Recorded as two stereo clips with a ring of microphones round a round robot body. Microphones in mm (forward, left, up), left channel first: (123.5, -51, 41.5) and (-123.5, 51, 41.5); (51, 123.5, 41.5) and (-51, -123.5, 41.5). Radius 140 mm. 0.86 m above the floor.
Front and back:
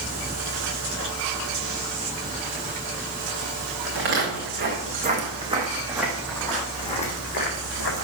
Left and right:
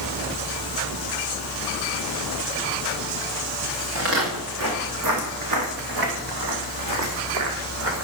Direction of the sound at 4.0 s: 155° right.